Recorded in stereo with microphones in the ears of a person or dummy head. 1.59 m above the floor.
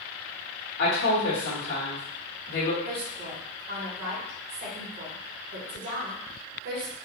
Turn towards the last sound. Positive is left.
turn(degrees=-45)  # may be behind; listen again after turning